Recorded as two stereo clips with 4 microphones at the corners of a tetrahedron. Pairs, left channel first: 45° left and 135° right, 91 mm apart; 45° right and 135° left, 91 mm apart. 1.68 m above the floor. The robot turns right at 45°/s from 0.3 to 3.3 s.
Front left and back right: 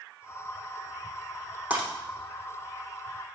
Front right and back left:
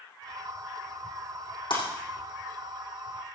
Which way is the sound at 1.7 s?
65° right.